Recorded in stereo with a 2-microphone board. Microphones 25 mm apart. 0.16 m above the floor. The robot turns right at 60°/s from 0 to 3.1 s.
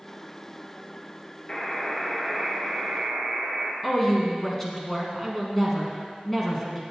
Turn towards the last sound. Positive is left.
turn(degrees=15)  # may be behind; listen again after turning